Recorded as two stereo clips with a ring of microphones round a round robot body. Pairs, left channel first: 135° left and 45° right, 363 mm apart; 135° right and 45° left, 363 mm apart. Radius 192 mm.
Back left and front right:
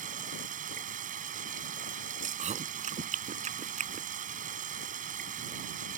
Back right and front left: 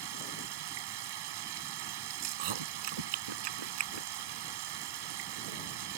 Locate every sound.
0.0 s running water: 25° left
2.2 s chewing: 25° left